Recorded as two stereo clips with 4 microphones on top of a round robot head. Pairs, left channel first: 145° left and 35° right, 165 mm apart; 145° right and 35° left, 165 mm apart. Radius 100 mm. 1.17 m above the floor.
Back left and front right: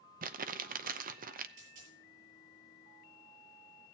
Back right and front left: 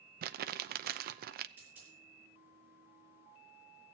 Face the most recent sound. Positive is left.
turn(degrees=-45)